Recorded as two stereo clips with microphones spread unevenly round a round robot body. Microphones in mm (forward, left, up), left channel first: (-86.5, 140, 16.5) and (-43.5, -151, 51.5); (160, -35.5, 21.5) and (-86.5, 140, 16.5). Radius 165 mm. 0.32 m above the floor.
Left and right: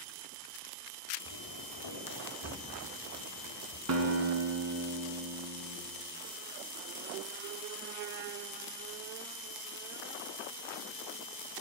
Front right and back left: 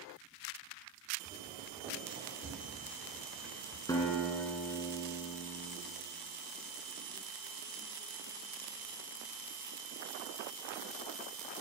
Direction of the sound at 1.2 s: 80° left.